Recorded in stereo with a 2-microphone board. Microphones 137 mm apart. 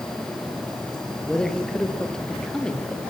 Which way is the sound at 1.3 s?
5° left (ahead or behind).